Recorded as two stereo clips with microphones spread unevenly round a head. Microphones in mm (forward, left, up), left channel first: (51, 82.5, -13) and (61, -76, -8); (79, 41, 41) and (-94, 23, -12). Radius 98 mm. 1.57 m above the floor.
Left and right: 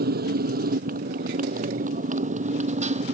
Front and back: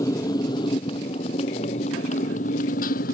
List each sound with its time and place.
0.0 s a motorcycle: 65° right; by 3.1 s 40° right